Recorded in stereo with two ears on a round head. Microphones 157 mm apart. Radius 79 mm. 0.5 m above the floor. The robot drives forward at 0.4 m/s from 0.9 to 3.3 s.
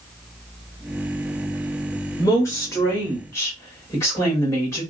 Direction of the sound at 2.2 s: 20° left (ahead or behind).